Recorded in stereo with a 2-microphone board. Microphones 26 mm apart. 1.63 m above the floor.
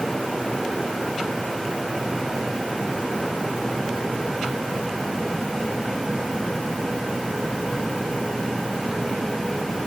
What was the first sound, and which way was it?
Only background noise.